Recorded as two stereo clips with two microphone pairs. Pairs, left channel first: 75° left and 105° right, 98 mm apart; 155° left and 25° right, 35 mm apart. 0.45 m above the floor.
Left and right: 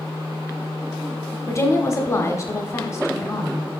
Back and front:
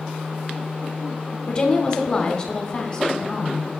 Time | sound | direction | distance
1.5 | a woman speaking | 115° left | 0.9 m